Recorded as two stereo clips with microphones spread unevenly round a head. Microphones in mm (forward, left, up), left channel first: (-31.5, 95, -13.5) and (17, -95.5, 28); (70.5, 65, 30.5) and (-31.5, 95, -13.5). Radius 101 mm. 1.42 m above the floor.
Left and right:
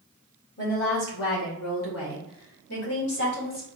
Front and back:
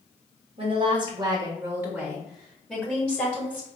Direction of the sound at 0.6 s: 140° left.